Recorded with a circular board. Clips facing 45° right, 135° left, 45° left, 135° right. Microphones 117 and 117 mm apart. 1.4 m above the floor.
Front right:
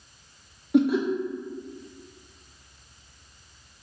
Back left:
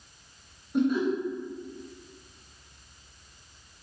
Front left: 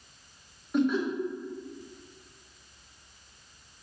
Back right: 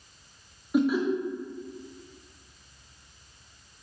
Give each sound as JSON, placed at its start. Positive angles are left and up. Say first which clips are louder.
{"t": 0.7, "sound": "laughter", "louder": "front right 4 dB, back right 2 dB", "azimuth_deg": -50, "distance_m": 0.8}